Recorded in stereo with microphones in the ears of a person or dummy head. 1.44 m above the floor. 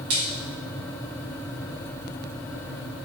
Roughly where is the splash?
Right.